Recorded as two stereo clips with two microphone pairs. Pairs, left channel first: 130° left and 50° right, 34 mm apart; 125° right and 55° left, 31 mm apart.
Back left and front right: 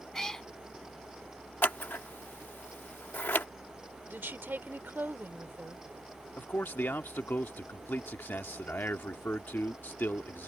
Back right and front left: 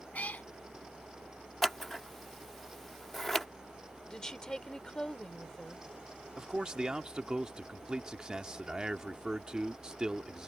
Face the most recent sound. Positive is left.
turn(degrees=120)